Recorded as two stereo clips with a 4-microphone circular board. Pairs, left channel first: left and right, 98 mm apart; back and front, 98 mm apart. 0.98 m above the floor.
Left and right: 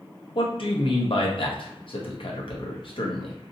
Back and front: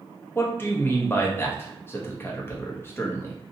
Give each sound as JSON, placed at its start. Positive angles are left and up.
{"t": 0.3, "sound": "a man speaking", "azimuth_deg": 115, "distance_m": 0.8}